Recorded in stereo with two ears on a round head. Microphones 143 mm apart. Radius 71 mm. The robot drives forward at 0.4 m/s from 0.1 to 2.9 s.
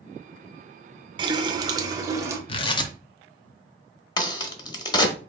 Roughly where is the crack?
Left.